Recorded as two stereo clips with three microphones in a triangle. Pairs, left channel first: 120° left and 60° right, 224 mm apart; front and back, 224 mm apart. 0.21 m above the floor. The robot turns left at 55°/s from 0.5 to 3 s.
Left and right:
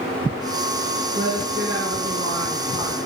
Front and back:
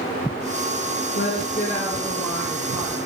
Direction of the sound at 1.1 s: 15° right.